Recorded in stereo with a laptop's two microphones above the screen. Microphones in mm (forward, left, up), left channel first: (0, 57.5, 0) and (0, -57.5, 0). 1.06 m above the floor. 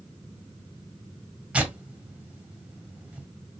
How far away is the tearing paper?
About 1.7 m.